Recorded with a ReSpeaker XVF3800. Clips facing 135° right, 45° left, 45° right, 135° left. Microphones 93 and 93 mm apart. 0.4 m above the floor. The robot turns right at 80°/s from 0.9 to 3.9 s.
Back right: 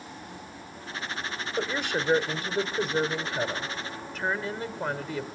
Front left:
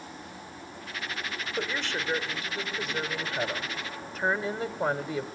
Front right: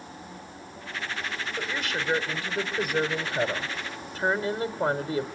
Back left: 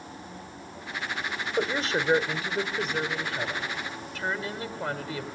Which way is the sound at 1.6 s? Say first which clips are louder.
Back right 4 dB, back left 6 dB; 135° left.